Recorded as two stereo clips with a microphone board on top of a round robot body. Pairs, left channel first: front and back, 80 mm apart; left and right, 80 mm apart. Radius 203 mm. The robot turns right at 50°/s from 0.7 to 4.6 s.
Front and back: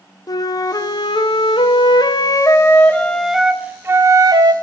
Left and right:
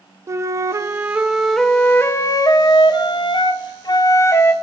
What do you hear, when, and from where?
0.3 s a flute: 40° right, 0.6 m; by 4.5 s 150° left, 0.6 m